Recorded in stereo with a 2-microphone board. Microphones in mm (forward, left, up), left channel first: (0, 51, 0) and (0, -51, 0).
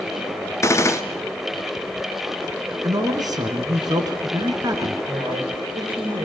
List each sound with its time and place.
0.6 s a gunshot: 30° left (ahead or behind), 1.1 m
2.8 s a man speaking: 40° right (ahead or behind), 2.5 m
5.1 s a man speaking: 55° right (ahead or behind), 7 m